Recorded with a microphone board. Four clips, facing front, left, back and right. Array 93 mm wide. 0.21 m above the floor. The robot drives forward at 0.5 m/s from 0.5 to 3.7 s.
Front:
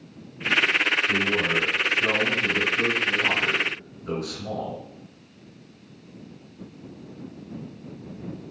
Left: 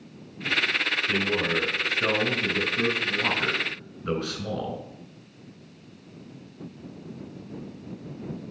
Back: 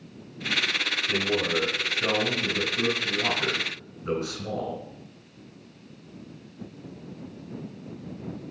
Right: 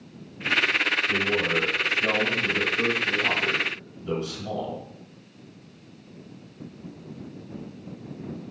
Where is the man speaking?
80° left, 2 m; by 4.8 s 120° left, 2.5 m.